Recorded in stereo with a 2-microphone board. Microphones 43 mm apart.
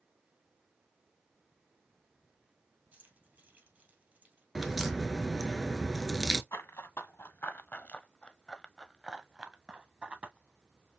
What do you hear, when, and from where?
2.9 s keys jangling: 40° right (ahead or behind), 2.5 m
4.5 s a crack: 5° right (ahead or behind), 0.7 m
6.5 s running footsteps: 75° left (ahead or behind), 1.2 m; by 11.0 s 35° right (ahead or behind), 1.7 m